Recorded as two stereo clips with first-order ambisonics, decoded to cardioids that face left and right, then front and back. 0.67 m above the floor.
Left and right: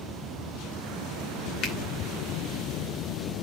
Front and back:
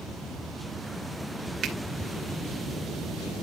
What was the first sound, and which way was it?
A finger snap, 130° left.